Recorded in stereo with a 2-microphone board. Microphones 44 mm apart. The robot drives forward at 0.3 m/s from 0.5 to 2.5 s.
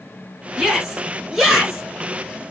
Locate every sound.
0.6 s a shout: 15° right (ahead or behind), 1.2 m; by 1.8 s 10° right (ahead or behind), 1.4 m